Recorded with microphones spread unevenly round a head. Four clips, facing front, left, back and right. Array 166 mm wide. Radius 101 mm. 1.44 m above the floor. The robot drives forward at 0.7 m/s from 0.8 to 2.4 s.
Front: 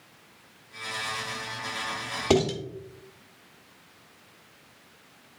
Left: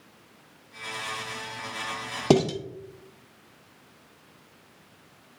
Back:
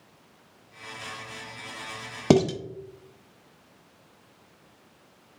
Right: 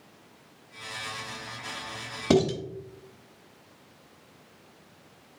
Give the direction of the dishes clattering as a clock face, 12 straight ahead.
6 o'clock.